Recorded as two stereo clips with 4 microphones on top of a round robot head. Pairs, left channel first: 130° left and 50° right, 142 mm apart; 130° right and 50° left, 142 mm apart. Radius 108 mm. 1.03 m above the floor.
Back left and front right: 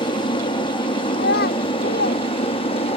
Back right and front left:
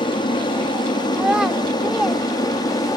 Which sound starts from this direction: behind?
An aircraft, at 0.0 s.